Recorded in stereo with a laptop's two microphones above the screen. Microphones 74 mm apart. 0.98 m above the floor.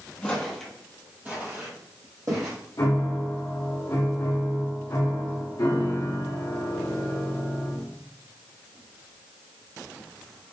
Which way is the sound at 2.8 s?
60° left (ahead or behind).